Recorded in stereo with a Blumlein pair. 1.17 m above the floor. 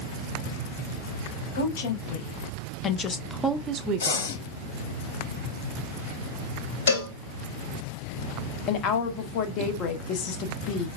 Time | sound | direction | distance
1.6 | a woman speaking | 60° left | 1.2 m
4.0 | breathing | 60° left | 1.4 m
6.9 | a cowbell | 65° left | 1.4 m
8.7 | a woman speaking | 35° left | 0.8 m